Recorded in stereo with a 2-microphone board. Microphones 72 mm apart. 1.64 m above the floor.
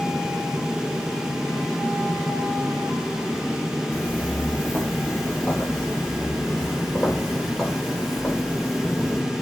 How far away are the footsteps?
About 3 m.